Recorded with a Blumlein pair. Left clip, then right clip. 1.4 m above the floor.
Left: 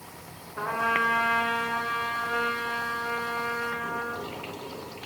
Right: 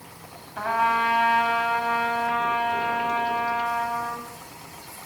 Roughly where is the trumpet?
Ahead right.